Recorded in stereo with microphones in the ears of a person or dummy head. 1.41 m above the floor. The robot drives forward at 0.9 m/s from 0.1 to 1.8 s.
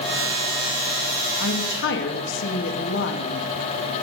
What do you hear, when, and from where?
1.4 s a woman speaking: 65° left (ahead or behind), 2.0 m; by 3.5 s 60° left (ahead or behind), 2 m